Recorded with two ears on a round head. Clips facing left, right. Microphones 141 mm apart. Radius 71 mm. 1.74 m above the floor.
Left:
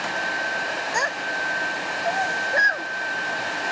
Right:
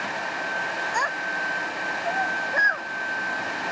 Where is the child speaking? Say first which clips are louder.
Left 1 dB; 25° left (ahead or behind).